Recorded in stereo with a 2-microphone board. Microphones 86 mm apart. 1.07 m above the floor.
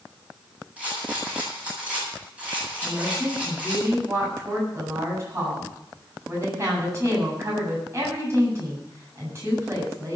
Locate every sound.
0.8 s a rattle: 15° right (ahead or behind), 8 m
2.8 s a woman speaking: 35° right (ahead or behind), 8 m